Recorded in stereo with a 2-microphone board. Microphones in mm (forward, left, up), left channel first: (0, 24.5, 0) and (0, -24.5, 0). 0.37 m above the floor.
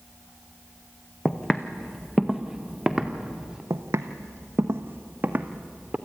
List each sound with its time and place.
1.2 s footsteps: 20° left (ahead or behind), 1.4 m; by 3.6 s 10° right (ahead or behind), 2.5 m
3.7 s footsteps: 75° right (ahead or behind), 1.2 m; by 6.0 s 30° right (ahead or behind), 1.8 m